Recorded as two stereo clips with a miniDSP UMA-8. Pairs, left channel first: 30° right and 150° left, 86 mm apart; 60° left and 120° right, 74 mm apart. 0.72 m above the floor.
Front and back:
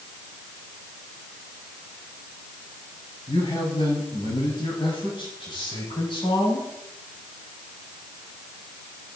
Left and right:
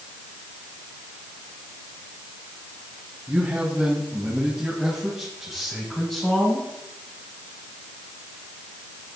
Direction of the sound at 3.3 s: 55° right.